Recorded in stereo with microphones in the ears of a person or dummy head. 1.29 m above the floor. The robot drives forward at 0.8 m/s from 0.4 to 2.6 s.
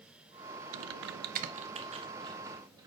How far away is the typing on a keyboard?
About 0.5 m.